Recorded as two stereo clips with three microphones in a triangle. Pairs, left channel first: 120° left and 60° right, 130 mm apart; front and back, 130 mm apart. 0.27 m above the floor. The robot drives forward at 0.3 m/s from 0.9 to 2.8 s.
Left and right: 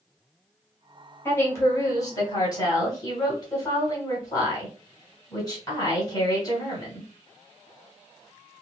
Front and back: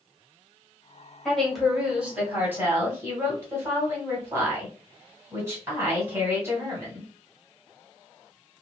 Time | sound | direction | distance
1.2 | a woman speaking | 80° left | 1.1 m